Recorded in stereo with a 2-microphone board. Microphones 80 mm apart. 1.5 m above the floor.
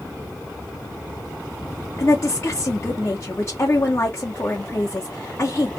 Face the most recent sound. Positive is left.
turn(degrees=35)  # may be behind; listen again after turning